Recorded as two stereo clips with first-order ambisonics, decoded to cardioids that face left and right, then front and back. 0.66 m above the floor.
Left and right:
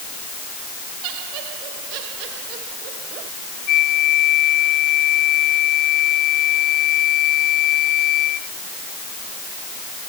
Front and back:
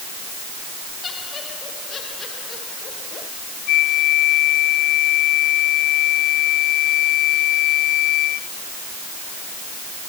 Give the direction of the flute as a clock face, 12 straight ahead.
11 o'clock.